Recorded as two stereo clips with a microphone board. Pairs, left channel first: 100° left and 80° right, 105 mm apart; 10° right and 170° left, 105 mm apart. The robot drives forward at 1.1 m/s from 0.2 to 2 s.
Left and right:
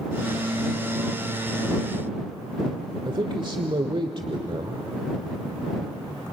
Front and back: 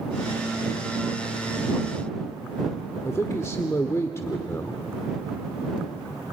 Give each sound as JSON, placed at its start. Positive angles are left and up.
{"t": 3.0, "sound": "a man speaking", "azimuth_deg": -70, "distance_m": 1.3}